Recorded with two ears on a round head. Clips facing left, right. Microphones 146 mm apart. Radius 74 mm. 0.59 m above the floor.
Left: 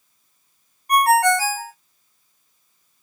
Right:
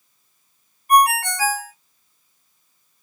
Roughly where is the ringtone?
Left.